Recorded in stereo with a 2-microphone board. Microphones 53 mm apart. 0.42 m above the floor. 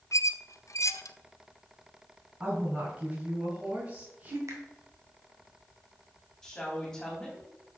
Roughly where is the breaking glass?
I don't hear breaking glass.